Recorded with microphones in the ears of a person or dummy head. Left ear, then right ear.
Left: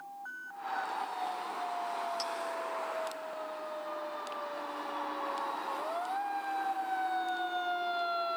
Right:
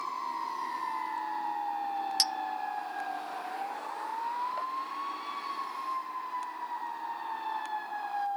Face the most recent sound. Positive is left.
turn(degrees=-35)  # may be behind; listen again after turning